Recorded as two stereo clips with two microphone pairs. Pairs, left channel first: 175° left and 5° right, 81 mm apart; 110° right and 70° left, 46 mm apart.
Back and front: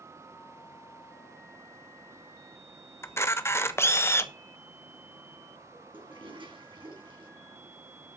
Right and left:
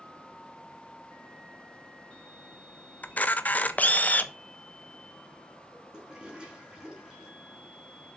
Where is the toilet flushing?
5° right, 5 m.